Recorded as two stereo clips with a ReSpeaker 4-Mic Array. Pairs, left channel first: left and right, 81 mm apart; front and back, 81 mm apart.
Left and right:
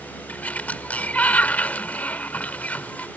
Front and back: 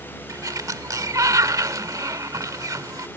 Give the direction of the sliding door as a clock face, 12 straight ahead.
7 o'clock.